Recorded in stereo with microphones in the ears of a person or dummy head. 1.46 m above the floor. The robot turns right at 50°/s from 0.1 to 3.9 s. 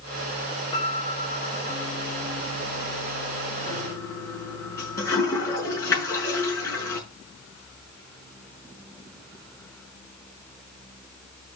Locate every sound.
0.7 s a piano: 25° left, 3 m; by 1.9 s 85° left, 3 m
3.7 s a toilet flushing: 30° left (ahead or behind), 5.5 m; by 7.0 s 20° left (ahead or behind), 5.5 m